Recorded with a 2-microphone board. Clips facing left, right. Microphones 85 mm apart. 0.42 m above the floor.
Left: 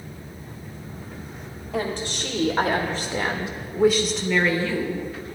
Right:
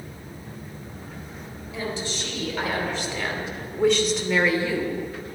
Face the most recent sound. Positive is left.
turn(degrees=-20)  # may be behind; listen again after turning